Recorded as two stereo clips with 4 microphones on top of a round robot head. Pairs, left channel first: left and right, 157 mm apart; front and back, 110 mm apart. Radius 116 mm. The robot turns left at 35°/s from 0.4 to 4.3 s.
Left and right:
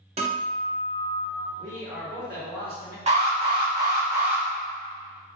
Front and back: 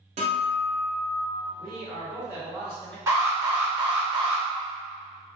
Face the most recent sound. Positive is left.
turn(degrees=-165)